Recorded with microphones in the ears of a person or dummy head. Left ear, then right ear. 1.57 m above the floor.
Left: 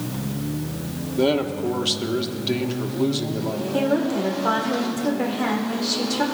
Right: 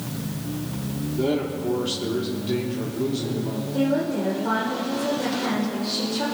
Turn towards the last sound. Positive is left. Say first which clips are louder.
# left 1 dB
turn(degrees=75)  # may be behind; listen again after turning